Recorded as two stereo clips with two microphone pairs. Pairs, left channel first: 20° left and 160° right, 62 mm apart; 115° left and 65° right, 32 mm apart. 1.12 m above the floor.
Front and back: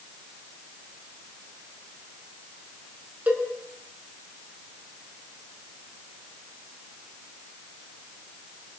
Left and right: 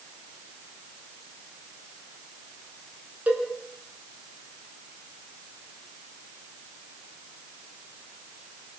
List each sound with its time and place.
3.3 s a cowbell: 100° right, 4 m